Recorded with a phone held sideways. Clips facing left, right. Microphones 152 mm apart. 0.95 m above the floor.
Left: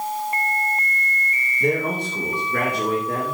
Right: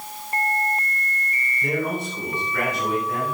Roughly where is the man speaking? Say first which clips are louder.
Left 3 dB; left.